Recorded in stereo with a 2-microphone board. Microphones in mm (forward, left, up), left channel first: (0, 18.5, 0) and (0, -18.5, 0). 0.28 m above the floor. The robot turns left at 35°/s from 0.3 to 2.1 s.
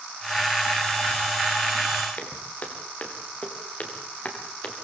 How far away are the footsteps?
About 6 m.